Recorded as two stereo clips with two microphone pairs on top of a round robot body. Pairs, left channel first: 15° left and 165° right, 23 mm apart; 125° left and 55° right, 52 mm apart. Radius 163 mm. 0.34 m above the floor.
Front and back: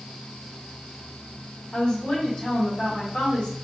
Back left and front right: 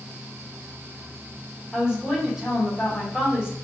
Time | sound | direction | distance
1.7 | a woman speaking | 10° left | 1.7 m